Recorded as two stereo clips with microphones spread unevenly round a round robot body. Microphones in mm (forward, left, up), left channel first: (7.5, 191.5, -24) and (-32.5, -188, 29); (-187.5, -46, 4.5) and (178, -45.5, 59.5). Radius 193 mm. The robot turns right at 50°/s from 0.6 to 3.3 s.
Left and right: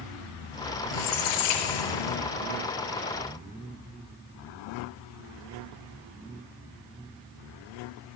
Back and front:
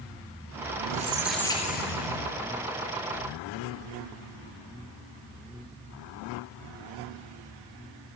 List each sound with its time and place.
0.9 s a squeak: 65° left, 3 m; by 2.4 s 145° left, 3 m